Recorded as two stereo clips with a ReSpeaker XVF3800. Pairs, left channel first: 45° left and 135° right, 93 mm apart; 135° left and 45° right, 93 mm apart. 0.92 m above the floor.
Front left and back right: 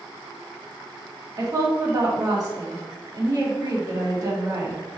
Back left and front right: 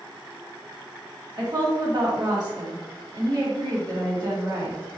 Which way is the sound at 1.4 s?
85° right.